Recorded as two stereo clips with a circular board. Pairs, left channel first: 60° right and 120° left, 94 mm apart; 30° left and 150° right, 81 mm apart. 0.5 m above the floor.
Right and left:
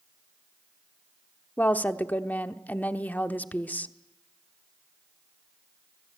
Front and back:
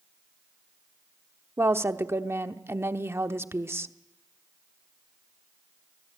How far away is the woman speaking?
About 0.8 m.